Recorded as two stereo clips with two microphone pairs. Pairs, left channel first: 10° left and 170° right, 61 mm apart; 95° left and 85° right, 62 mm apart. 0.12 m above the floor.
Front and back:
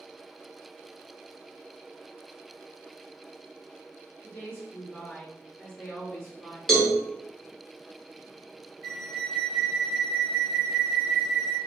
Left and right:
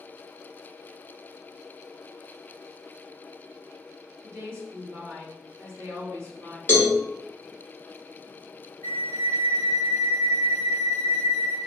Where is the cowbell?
90° left, 1.0 m.